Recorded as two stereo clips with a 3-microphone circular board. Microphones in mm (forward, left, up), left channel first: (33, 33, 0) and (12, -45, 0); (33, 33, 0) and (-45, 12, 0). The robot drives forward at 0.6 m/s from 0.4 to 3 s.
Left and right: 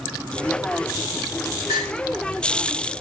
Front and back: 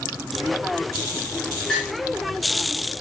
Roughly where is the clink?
Right.